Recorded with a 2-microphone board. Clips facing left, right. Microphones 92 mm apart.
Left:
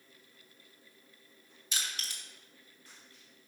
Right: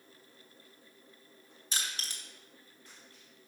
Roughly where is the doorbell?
No doorbell in this recording.